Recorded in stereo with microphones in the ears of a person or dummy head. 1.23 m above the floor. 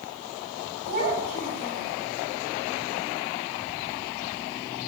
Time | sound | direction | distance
0.9 | a child speaking | 55° right (ahead or behind) | 4 m